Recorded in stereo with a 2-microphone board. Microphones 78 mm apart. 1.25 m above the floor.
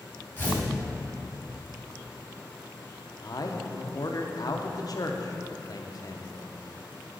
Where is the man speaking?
50° left (ahead or behind), 0.7 m.